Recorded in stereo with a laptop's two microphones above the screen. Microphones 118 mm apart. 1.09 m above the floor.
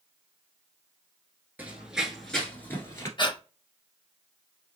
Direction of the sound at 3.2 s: 40° left (ahead or behind).